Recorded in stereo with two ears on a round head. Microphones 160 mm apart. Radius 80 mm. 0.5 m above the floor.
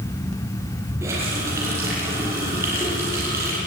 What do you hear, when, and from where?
1.0 s a running tap: 15° right (ahead or behind), 9 m